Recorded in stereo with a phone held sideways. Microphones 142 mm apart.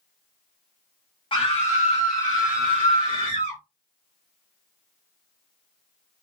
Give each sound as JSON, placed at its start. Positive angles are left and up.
{"t": 1.3, "sound": "a scream", "side_deg": 35, "distance_m": 0.9}